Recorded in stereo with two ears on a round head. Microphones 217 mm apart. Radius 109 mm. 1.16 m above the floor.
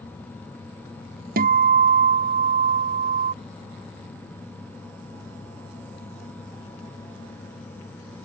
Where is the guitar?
40° right (ahead or behind).